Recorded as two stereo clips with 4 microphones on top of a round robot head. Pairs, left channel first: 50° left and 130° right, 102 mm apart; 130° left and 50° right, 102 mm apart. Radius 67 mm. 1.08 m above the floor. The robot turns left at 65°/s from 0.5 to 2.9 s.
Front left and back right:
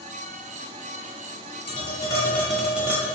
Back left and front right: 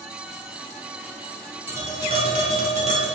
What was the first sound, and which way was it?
Tapping, 20° left.